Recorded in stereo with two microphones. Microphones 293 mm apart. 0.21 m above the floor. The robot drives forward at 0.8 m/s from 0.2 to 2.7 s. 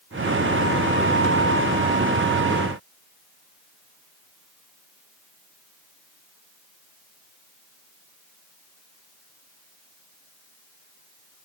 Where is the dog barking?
I don't hear a dog barking.